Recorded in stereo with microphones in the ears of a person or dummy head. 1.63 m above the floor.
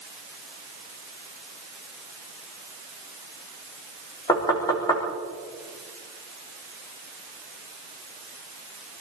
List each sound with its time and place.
4.3 s knocking: 15° left (ahead or behind), 3.5 m